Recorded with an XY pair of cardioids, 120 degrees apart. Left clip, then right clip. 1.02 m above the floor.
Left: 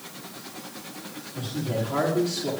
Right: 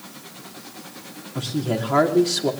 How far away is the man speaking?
About 3 m.